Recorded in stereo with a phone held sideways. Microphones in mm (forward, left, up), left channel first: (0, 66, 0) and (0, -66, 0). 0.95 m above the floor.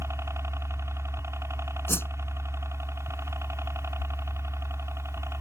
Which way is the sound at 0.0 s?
20° right (ahead or behind).